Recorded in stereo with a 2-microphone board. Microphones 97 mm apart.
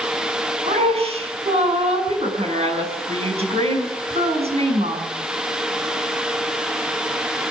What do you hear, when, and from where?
0.7 s a woman speaking: 80° right, 6.5 m